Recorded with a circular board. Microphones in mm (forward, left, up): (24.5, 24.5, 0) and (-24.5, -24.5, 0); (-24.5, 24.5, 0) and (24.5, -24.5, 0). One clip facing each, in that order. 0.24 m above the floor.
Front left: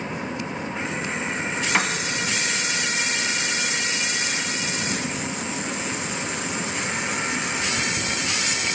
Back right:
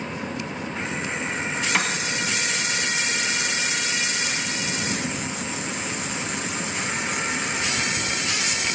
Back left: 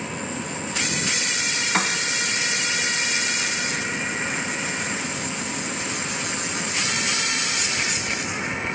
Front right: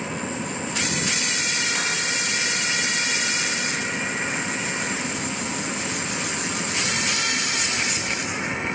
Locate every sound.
1.7 s a piano: 125° left, 0.9 m